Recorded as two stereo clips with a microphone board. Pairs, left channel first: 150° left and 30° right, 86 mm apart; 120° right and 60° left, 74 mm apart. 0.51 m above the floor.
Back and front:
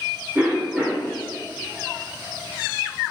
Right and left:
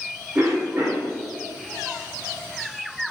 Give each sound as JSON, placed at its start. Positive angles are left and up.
{"t": 0.3, "sound": "a cough", "azimuth_deg": 15, "distance_m": 0.8}